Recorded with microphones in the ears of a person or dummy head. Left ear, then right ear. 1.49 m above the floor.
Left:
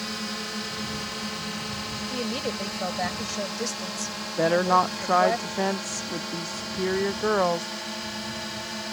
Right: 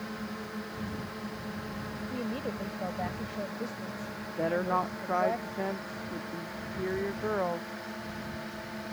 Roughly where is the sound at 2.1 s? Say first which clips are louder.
Left 6 dB; left.